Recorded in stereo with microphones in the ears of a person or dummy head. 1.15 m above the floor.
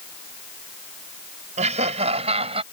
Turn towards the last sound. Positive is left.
turn(degrees=-35)  # may be behind; listen again after turning